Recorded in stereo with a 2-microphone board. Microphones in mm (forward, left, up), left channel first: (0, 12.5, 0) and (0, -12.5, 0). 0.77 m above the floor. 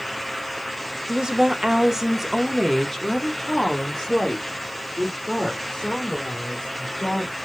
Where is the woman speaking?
30° right (ahead or behind), 1.0 m; by 7.4 s 30° left (ahead or behind), 3 m.